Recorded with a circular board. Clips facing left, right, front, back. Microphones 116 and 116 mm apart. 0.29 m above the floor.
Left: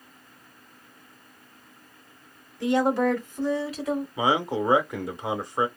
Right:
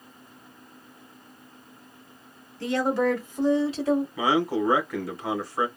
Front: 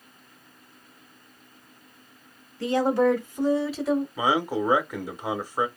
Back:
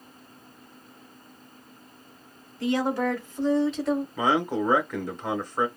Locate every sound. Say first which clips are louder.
2.6 s a woman speaking: left 2 dB, front 4 dB; 25° left, 1.4 m; by 4.1 s 95° right, 1.5 m
4.2 s a man speaking: right 1 dB, even; 65° left, 0.9 m